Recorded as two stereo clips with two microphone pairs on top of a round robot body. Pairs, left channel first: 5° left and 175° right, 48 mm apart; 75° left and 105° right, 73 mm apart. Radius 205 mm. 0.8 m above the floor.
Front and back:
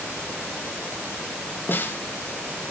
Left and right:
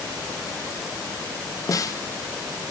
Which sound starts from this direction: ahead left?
A snare drum, at 1.7 s.